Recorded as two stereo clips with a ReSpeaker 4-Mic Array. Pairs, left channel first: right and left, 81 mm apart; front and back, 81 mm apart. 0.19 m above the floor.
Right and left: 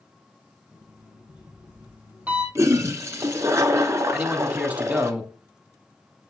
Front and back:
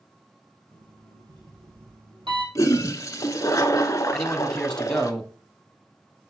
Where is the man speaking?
65° left, 1.0 m.